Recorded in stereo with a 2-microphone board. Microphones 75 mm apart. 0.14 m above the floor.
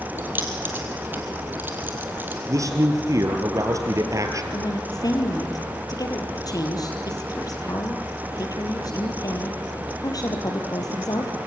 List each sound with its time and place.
0.2 s keys jangling: 25° right (ahead or behind), 3 m
2.5 s a man speaking: 45° right (ahead or behind), 3 m
4.5 s a woman speaking: 55° left (ahead or behind), 3.5 m